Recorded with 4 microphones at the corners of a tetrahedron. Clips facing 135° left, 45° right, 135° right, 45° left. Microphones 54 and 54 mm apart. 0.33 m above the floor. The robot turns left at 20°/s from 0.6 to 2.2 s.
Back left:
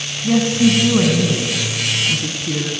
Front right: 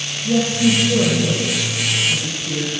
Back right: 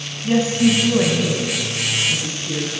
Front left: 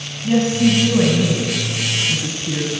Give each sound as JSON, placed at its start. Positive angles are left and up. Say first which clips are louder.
{"t": 0.2, "sound": "a woman speaking", "louder": "back left 2 dB, front left 1 dB", "azimuth_deg": 145, "distance_m": 2.5}